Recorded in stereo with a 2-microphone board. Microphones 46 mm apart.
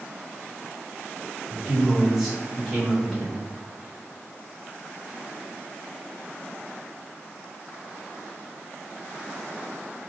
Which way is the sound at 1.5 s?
5° right (ahead or behind).